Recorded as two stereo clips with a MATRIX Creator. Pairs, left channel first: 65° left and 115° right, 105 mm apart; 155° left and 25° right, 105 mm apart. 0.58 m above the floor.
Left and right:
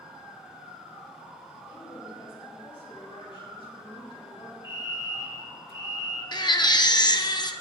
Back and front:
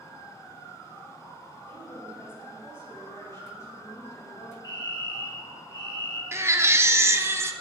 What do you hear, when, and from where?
1.7 s a woman speaking: 85° left, 3.5 m; by 4.5 s 100° left, 5.5 m
4.6 s a fire alarm: 170° right, 3 m
6.3 s a baby crying: 35° left, 0.7 m